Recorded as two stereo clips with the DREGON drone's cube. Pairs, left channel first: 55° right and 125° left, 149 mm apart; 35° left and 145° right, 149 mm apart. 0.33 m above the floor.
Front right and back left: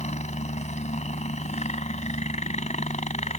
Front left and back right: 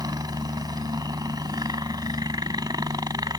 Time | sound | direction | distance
0.0 | a helicopter | 85° right | ?